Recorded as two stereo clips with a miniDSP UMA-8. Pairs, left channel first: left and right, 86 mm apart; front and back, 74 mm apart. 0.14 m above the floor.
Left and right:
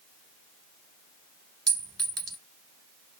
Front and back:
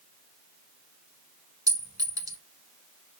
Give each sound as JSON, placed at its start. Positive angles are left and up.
{"t": 1.7, "sound": "a clink", "azimuth_deg": 180, "distance_m": 1.7}